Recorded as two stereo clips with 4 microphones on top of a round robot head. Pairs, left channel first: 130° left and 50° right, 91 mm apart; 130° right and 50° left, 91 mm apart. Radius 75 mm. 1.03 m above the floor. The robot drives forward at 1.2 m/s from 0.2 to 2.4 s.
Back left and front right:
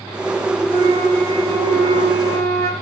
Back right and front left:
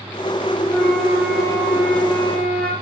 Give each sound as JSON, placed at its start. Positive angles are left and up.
{"t": 0.7, "sound": "a flute", "azimuth_deg": -35, "distance_m": 5.5}